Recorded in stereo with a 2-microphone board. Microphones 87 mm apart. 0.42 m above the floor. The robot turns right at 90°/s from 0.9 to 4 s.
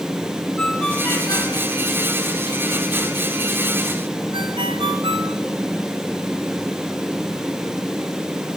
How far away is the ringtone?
About 3 m.